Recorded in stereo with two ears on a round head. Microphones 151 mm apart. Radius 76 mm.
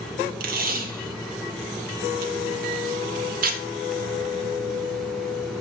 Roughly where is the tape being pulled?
Right.